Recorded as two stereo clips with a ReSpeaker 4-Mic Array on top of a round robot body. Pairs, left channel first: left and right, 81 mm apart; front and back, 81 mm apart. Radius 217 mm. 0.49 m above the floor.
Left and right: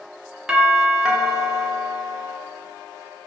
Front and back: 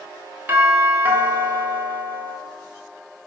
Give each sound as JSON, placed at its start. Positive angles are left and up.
{"t": 0.5, "sound": "a doorbell", "azimuth_deg": -165, "distance_m": 1.1}